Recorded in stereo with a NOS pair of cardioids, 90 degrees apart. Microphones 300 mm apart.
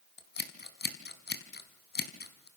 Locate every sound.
0.2 s scissors: 35° left, 4.5 m